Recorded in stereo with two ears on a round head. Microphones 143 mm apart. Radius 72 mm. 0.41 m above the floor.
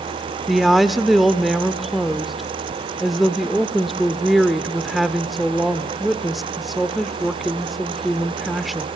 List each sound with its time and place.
0.5 s a woman speaking: centre (ahead or behind), 0.9 m